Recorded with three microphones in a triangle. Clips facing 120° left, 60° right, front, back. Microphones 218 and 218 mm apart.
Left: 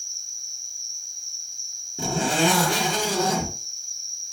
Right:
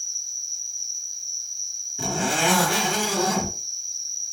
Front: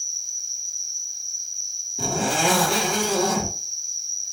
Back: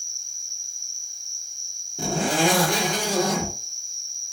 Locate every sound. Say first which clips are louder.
0.0 s an insect: right 1 dB, front 1 dB; 80° left, 1.5 m
2.0 s a zipper: left 3 dB, back 2 dB; 85° left, 2.5 m